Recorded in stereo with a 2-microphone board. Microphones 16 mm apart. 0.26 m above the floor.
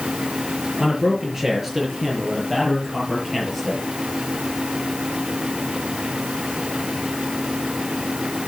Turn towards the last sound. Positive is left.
turn(degrees=5)  # may be behind; listen again after turning